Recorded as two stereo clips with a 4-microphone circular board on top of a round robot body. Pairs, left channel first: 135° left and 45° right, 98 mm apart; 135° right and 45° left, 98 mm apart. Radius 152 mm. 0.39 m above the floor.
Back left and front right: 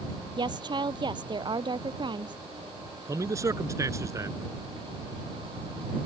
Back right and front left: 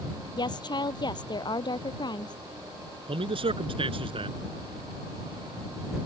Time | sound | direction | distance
0.4 | a woman speaking | 90° right | ?
3.1 | a man speaking | 15° left | ?